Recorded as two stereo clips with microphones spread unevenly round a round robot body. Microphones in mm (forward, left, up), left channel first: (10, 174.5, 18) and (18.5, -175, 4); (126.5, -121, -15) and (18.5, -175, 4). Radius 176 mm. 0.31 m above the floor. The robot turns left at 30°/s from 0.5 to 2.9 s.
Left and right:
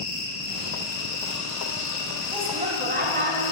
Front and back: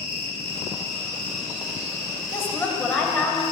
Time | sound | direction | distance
0.0 | an insect | 135° left | 1.5 m
2.3 | a woman speaking | 25° right | 1.2 m